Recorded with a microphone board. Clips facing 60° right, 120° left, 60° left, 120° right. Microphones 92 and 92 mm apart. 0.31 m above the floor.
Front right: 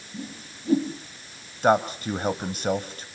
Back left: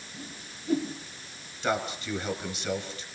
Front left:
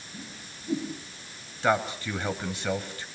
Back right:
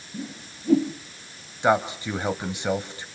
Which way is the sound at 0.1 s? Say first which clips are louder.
Front right 7 dB, back right 9 dB; 115° right.